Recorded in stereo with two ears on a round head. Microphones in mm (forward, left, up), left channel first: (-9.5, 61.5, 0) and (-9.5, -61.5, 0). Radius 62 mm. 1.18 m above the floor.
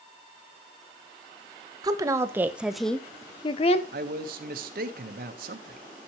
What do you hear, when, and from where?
1.8 s a woman speaking: 30° right (ahead or behind), 1.2 m; by 3.8 s 50° left (ahead or behind), 0.8 m
3.9 s a man speaking: 75° right (ahead or behind), 1.2 m